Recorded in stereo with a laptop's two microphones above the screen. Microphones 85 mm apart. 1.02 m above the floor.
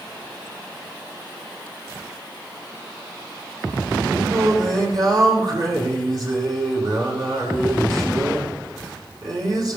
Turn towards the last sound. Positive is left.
turn(degrees=-55)  # may be behind; listen again after turning